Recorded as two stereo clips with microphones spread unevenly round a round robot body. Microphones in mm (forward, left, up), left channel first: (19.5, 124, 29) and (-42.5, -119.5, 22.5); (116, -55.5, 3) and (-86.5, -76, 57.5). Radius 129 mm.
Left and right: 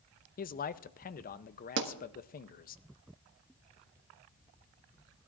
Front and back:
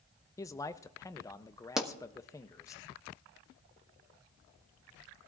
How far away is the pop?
About 1.3 m.